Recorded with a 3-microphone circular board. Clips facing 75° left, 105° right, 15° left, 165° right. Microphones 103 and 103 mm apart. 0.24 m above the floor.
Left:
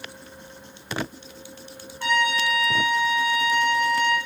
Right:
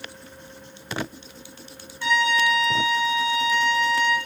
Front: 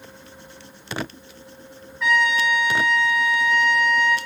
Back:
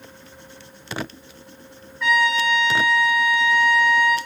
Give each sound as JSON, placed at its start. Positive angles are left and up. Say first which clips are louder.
{"t": 2.0, "sound": "a trumpet", "louder": "right 2 dB, back 1 dB", "azimuth_deg": 100, "distance_m": 1.3}